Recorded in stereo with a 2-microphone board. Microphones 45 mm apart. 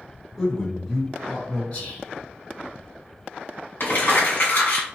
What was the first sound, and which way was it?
A man speaking, centre (ahead or behind).